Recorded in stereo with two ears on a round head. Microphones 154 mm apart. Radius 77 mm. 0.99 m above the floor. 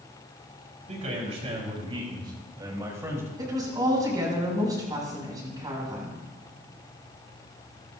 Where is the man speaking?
40° right (ahead or behind), 6 m; by 3.3 s 15° right (ahead or behind), 4.5 m.